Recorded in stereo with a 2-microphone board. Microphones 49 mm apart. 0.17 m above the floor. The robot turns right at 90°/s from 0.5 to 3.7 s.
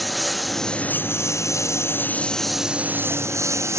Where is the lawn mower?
Straight ahead; by 3.8 s 70° right.